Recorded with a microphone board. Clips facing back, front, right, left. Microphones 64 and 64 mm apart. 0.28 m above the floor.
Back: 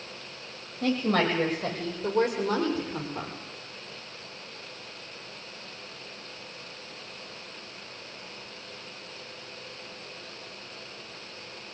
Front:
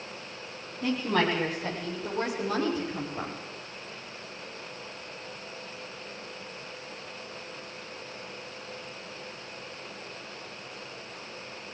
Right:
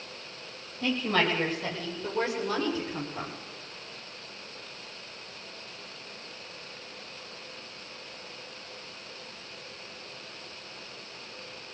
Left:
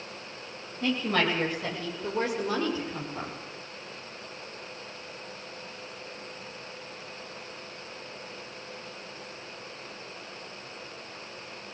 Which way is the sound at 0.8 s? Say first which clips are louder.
Back 1 dB, even; 165° left.